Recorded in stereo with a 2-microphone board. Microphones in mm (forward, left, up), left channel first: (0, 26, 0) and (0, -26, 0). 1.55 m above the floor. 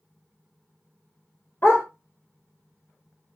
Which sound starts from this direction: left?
A dog barking, at 1.6 s.